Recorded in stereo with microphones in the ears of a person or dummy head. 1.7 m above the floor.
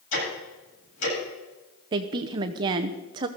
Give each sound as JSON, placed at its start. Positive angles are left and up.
{"t": 0.1, "sound": "ticking", "side_deg": 85, "distance_m": 8.5}
{"t": 1.9, "sound": "a woman speaking", "side_deg": -25, "distance_m": 0.8}